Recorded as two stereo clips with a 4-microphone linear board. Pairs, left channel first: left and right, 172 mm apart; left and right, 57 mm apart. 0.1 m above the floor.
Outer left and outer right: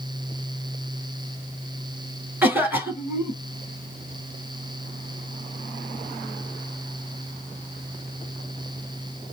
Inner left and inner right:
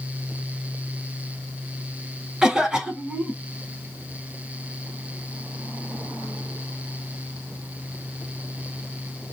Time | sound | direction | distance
2.4 | a cough | 10° right (ahead or behind) | 1.4 m